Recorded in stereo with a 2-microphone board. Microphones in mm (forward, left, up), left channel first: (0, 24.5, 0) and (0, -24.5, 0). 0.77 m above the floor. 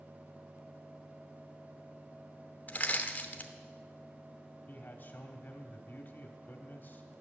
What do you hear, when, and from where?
2.7 s crushing: 40° left (ahead or behind), 1.1 m
4.7 s a man speaking: 45° left (ahead or behind), 1.6 m